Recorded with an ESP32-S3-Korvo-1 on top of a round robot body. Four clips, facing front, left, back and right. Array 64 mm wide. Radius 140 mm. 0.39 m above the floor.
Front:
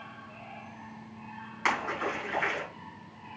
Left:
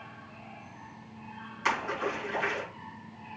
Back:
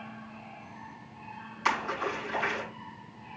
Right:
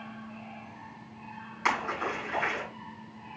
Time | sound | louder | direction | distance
1.6 | a splash | right 1 dB, even | 20° right | 5 m